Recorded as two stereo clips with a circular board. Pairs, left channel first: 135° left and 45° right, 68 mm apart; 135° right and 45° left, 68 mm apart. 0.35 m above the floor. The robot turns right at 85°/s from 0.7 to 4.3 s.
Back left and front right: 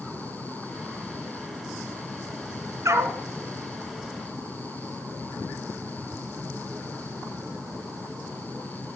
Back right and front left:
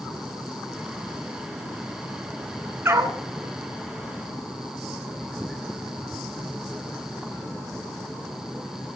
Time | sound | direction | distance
2.9 | a dog barking | 10° right | 1.1 m